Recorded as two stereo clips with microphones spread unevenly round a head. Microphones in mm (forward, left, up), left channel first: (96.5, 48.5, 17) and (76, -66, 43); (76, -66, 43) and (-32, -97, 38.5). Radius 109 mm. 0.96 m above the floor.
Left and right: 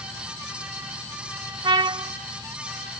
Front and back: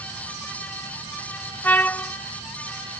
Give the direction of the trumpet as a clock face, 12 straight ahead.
2 o'clock.